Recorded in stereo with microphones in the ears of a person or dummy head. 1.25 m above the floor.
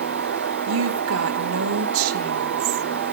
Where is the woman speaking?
75° right (ahead or behind), 1.5 m.